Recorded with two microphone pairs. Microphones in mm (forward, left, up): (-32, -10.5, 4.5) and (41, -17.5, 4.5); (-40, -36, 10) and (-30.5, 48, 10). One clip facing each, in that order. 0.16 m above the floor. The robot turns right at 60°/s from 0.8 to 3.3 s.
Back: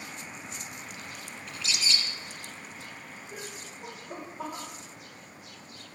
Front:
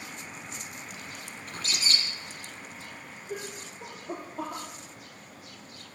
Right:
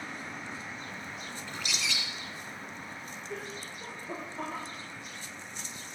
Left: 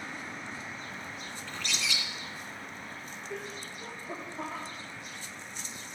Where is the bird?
30° right, 1.6 m; by 2.0 s 5° left, 1.6 m.